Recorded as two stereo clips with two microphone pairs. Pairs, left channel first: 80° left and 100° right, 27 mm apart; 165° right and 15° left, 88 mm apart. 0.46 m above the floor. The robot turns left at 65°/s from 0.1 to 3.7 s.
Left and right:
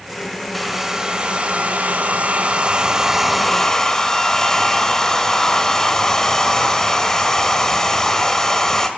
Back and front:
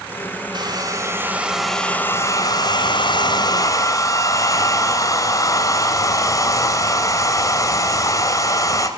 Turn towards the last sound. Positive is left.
turn(degrees=150)